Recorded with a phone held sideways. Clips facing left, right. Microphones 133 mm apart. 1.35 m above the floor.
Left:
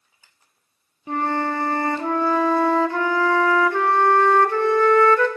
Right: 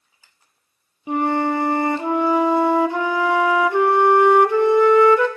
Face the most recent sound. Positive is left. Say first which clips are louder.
# right 4 dB
turn(degrees=-15)  # may be behind; listen again after turning